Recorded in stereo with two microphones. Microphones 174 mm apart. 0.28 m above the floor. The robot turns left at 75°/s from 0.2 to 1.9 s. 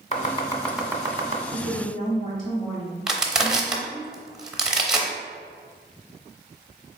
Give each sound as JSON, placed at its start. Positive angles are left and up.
{"t": 0.1, "sound": "chopping", "side_deg": 40, "distance_m": 0.6}
{"t": 1.5, "sound": "a woman speaking", "side_deg": 45, "distance_m": 1.5}
{"t": 3.1, "sound": "crushing", "side_deg": -5, "distance_m": 0.7}